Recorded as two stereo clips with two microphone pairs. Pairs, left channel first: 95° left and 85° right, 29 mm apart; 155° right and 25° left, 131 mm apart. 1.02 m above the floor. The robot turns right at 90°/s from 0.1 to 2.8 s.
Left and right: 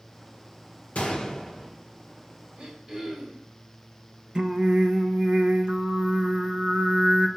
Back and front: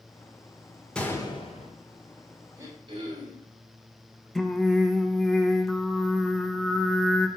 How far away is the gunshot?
About 1.3 m.